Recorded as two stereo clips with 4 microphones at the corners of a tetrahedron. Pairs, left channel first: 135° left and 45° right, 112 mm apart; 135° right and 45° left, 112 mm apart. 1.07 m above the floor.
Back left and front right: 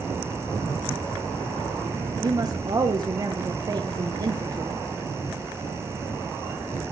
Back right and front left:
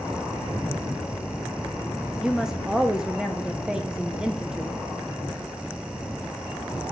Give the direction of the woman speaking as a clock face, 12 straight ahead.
1 o'clock.